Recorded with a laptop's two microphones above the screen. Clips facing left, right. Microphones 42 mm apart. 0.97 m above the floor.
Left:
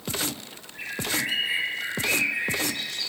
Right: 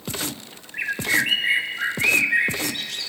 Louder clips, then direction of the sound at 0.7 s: Right 8 dB; 70° right (ahead or behind).